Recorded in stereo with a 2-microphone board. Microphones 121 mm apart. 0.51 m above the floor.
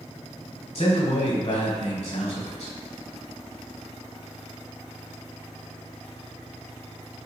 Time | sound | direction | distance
0.8 | a man speaking | 65° left (ahead or behind) | 1.6 m